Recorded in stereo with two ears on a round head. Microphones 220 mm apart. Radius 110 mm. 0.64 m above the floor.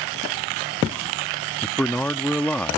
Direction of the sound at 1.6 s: 5° left (ahead or behind).